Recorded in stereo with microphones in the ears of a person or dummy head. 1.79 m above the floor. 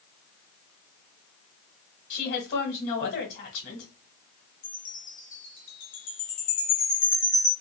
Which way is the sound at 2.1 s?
45° left (ahead or behind).